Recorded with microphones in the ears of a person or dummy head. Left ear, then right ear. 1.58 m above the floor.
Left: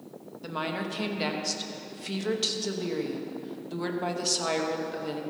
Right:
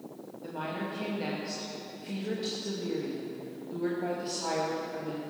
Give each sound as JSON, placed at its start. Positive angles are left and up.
{"t": 0.4, "sound": "a woman speaking", "side_deg": 50, "distance_m": 2.5}